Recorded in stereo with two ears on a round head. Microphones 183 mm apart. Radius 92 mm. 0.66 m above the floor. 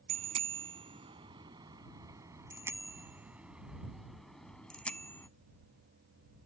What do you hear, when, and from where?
0.1 s a bicycle bell: 35° right (ahead or behind); by 5.3 s 10° left (ahead or behind)